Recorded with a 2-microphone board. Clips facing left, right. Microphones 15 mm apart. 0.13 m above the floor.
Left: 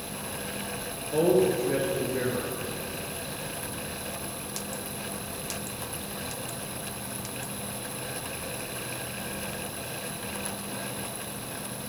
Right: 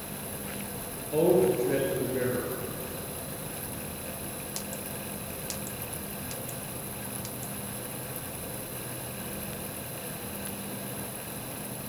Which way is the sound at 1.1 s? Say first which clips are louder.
Even; 5° left (ahead or behind).